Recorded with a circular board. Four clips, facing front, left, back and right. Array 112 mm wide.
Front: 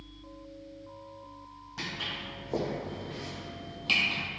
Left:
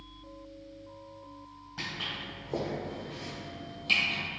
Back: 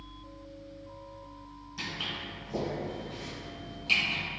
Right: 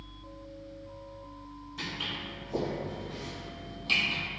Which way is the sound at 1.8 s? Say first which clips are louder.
Even, even; 40° left.